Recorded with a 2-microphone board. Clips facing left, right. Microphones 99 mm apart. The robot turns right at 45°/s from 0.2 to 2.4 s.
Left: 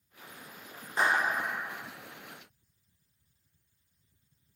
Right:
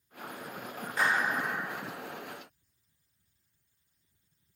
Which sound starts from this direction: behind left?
A clap, at 1.0 s.